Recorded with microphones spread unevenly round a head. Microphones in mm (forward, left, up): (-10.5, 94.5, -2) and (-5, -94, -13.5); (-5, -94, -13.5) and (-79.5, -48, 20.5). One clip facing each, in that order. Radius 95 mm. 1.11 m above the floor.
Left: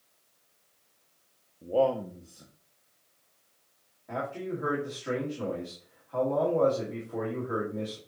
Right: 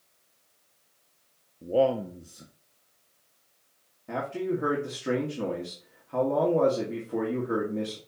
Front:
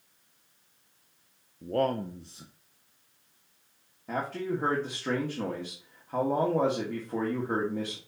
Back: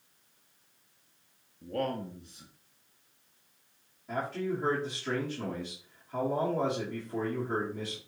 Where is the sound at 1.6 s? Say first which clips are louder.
Right 2 dB, front 5 dB; 25° right, 0.5 m.